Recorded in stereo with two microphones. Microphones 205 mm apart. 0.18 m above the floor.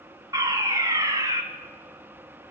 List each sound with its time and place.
0.3 s a fire alarm: 15° right (ahead or behind), 2 m